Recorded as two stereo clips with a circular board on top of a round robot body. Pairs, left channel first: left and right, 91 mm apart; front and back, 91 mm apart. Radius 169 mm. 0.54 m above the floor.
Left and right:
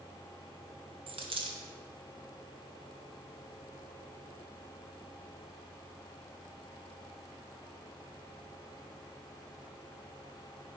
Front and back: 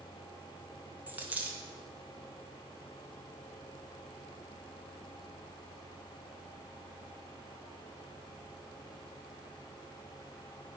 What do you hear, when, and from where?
1.1 s a dropped coin: 105° right, 0.9 m